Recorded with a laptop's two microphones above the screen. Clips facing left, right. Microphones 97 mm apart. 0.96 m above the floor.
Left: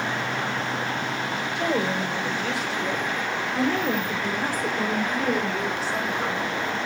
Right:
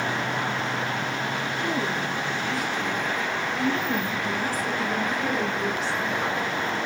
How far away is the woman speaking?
About 5.5 m.